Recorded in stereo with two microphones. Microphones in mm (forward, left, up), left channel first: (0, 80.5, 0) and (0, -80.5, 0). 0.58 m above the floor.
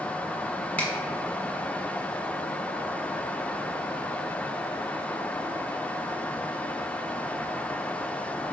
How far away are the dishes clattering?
No dishes clattering in this recording.